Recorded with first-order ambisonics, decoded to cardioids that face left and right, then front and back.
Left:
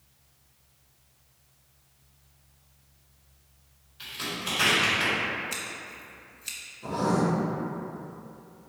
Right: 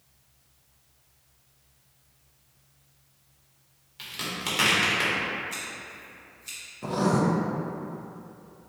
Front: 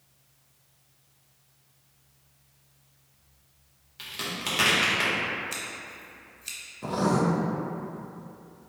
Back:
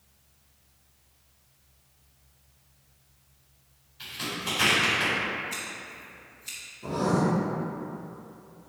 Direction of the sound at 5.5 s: 55° left.